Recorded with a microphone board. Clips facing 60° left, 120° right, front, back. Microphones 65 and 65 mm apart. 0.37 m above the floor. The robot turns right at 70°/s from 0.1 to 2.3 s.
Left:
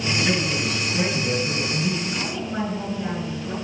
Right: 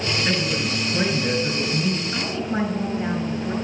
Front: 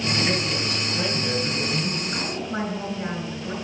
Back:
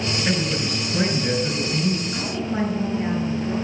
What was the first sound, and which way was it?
A man speaking, 175° left.